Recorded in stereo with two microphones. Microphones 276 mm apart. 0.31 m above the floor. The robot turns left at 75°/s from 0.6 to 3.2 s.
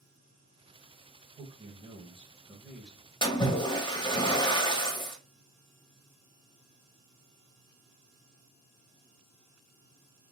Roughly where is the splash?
Centre.